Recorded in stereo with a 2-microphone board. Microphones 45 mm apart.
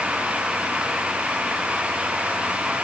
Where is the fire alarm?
I don't hear a fire alarm.